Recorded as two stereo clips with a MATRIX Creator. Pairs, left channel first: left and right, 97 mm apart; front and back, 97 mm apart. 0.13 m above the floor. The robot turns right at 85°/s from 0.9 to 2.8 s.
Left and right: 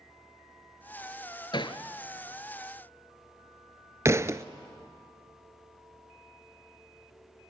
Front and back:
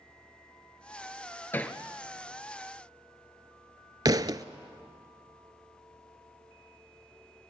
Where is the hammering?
65° left, 1.3 m; by 1.8 s 90° left, 1.3 m.